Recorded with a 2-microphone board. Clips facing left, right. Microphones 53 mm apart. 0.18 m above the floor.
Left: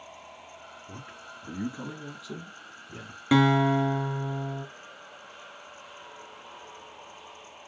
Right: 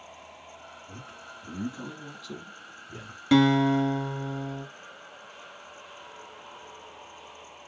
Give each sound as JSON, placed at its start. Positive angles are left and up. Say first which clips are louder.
{"t": 0.9, "sound": "a man speaking", "louder": "left 1 dB", "side_deg": 40, "distance_m": 1.7}
{"t": 3.3, "sound": "a guitar", "louder": "right 1 dB", "side_deg": 15, "distance_m": 1.1}